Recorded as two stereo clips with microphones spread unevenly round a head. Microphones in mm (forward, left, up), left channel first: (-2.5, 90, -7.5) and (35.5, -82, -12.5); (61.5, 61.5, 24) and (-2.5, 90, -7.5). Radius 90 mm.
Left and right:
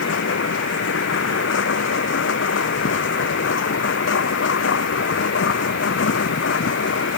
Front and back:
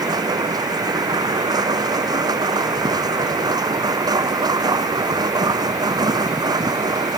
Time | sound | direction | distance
0.0 | a machine running | 130° left | ?